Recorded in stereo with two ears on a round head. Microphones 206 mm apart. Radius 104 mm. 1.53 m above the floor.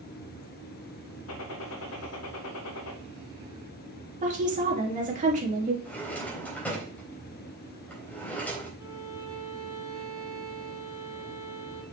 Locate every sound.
1.3 s a gunshot: 75° left (ahead or behind), 2 m
4.2 s a woman speaking: 35° right (ahead or behind), 3 m
5.8 s a drawer: 5° left (ahead or behind), 3.5 m
8.8 s a violin: 15° right (ahead or behind), 3.5 m